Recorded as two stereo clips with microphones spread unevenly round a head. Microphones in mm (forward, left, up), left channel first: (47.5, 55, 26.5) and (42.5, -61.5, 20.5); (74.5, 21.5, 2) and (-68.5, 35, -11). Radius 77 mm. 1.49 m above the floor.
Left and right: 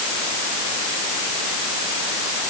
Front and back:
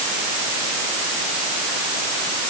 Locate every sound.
Only background noise.